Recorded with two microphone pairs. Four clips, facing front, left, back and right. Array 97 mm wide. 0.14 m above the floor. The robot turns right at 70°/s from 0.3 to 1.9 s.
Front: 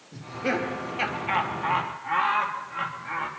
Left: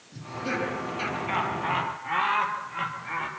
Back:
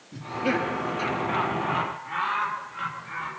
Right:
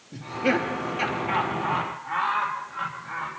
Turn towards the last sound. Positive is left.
turn(degrees=35)